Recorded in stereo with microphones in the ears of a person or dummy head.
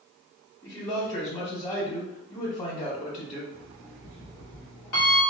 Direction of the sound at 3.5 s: 45° left (ahead or behind).